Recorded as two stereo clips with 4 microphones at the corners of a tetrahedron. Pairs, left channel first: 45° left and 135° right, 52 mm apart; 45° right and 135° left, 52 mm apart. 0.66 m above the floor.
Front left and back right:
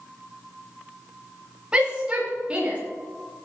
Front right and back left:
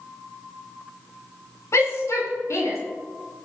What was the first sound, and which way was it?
A shout, 65° right.